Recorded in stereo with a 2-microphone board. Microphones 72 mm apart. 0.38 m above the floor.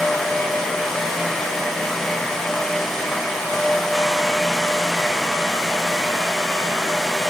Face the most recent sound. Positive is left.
No sound to turn to.